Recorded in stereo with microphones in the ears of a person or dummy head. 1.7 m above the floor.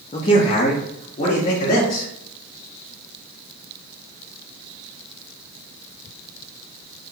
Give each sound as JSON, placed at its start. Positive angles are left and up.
{"t": 0.1, "sound": "a man speaking", "side_deg": 25, "distance_m": 0.6}